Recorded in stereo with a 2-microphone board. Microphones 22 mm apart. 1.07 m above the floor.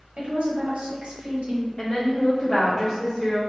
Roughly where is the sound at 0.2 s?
Right.